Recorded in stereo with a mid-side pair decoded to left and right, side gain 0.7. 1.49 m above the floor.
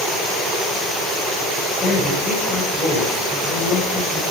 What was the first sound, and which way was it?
A man speaking, 35° left.